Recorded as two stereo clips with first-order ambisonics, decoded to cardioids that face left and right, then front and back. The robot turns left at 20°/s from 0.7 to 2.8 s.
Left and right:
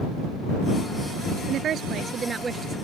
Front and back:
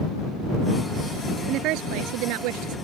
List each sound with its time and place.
1.5 s a woman speaking: 145° right; by 2.8 s 170° right